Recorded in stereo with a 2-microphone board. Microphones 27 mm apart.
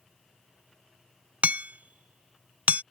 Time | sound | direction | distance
1.4 | hammering | 70° right (ahead or behind) | ?